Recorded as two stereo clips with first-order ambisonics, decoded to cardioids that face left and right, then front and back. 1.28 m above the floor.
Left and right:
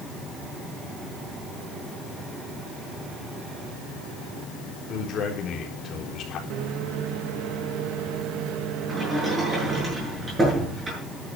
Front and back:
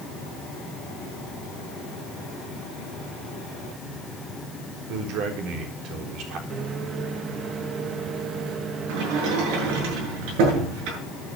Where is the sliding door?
165° right, 8.5 m.